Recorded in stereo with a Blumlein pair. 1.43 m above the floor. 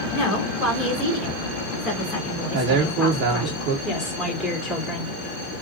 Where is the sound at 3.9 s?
25° left, 2.5 m.